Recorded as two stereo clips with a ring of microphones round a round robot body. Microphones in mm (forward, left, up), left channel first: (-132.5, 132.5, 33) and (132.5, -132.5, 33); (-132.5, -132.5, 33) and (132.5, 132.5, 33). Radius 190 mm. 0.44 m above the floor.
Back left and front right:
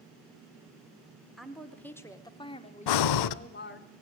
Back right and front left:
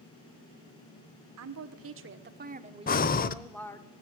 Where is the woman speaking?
45° left, 1.7 m; by 3.9 s 155° left, 1.5 m.